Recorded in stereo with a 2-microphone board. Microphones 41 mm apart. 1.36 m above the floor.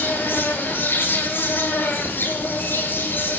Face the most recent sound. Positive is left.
turn(degrees=65)  # may be behind; listen again after turning